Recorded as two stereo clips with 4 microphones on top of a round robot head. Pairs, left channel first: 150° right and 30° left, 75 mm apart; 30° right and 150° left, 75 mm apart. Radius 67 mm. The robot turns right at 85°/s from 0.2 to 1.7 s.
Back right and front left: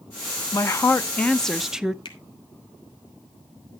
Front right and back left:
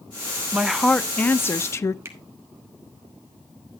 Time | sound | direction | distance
0.5 | a woman speaking | 145° right | 0.6 m
2.0 | a finger snap | 160° right | 1.4 m